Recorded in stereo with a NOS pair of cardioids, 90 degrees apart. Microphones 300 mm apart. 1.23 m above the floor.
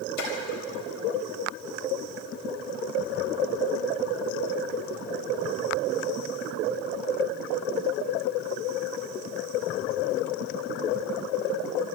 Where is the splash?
65° left, 4.5 m.